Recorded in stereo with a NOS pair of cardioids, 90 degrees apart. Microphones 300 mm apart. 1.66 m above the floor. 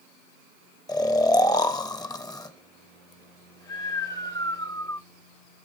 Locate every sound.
0.9 s snoring: 10° left, 0.7 m